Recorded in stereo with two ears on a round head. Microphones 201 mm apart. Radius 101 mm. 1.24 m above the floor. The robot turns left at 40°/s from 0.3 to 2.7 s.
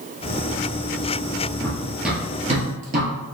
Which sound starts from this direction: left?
Running footsteps, at 1.6 s.